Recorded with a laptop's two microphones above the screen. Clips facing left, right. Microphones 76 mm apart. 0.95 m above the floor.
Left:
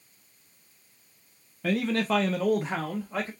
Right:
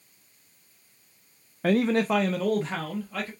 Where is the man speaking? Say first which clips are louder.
Right 4 dB; 50° right (ahead or behind), 0.5 m; by 3.3 s 25° left (ahead or behind), 1.3 m.